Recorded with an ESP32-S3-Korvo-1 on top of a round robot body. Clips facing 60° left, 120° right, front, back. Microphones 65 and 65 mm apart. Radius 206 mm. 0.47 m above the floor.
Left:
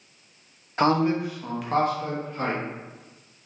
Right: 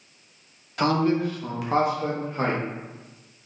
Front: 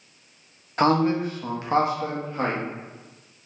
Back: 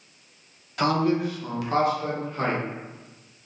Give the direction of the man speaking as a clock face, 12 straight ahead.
11 o'clock.